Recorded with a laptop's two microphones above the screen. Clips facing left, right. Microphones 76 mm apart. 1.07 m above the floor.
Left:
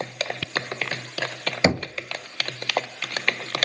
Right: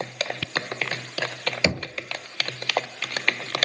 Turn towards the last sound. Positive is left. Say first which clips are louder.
# left 5 dB
turn(degrees=35)  # may be behind; listen again after turning